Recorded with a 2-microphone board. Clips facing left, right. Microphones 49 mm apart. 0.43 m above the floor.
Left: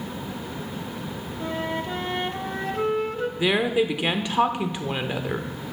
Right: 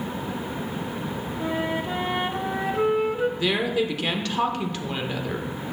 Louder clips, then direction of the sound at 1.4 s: Right 1 dB; 10° right (ahead or behind).